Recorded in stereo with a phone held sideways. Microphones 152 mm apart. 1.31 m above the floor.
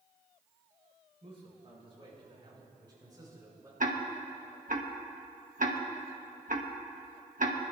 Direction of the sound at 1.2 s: 40° right (ahead or behind).